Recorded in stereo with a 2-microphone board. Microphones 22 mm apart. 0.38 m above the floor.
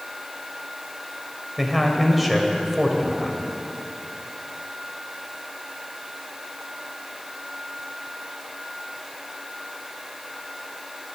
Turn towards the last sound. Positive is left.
turn(degrees=-5)  # may be behind; listen again after turning